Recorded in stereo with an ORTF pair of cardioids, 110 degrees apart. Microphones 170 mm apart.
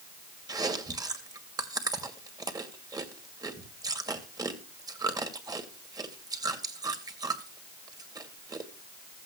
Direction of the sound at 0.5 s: 20° right.